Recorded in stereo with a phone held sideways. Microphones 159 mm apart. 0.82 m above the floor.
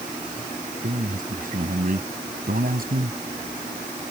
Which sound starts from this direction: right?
A man speaking, at 0.8 s.